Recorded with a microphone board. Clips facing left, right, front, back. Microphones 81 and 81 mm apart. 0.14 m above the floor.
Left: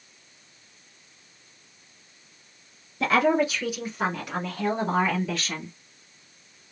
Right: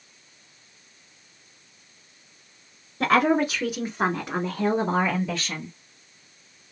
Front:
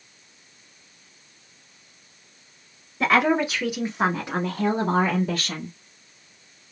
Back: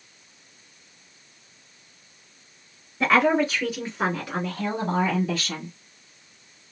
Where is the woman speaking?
95° right, 1.5 m; by 5.7 s 5° right, 1.5 m.